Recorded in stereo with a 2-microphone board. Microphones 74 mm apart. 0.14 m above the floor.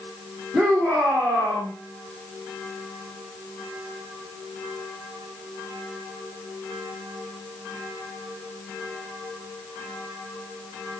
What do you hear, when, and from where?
0.5 s a shout: 5° left (ahead or behind), 9.5 m